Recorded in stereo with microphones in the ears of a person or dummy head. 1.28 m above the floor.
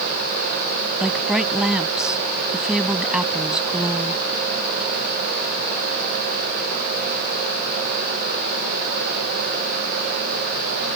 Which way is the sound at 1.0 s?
5° right (ahead or behind).